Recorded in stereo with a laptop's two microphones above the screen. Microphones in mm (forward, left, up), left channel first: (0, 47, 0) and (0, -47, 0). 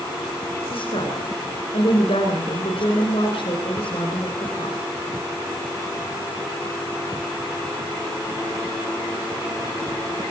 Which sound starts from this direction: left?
A woman speaking, at 0.7 s.